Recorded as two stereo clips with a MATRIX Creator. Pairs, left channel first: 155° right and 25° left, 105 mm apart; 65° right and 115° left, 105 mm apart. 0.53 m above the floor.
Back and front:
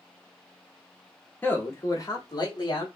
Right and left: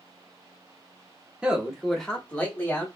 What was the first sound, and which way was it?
A man speaking, 170° left.